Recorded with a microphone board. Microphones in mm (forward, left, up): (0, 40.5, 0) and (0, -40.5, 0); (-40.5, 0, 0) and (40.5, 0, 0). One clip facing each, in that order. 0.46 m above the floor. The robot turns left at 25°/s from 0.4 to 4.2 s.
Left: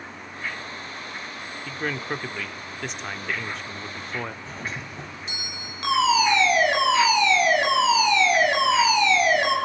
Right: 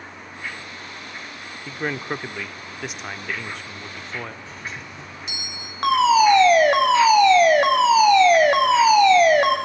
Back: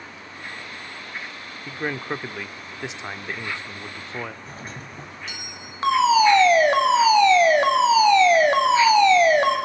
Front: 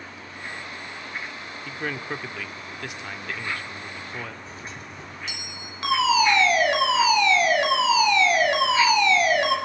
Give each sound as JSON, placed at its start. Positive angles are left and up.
{"t": 1.7, "sound": "a man speaking", "azimuth_deg": -135, "distance_m": 1.2}
{"t": 4.5, "sound": "a doorbell", "azimuth_deg": 140, "distance_m": 3.5}
{"t": 5.8, "sound": "a fire alarm", "azimuth_deg": -130, "distance_m": 4.5}